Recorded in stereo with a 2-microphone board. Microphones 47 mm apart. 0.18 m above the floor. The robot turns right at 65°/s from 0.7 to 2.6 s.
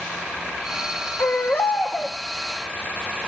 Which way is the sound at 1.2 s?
95° left.